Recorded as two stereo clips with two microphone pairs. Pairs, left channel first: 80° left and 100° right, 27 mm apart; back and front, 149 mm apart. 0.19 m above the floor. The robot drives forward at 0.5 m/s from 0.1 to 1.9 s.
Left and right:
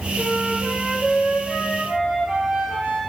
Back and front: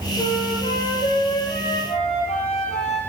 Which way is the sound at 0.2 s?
135° right.